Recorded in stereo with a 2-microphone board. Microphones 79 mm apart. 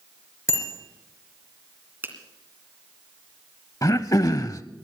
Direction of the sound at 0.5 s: 30° left (ahead or behind).